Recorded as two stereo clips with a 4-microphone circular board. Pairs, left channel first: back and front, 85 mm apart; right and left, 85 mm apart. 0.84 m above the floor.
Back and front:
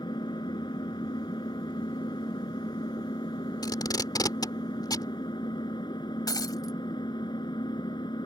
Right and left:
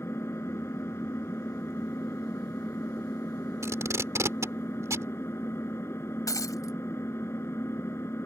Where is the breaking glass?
140° right.